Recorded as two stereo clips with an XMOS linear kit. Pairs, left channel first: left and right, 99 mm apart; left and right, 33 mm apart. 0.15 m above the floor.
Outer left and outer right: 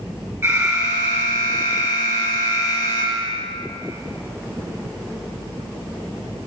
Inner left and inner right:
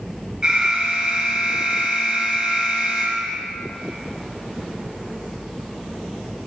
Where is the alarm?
25° right (ahead or behind), 2.5 m.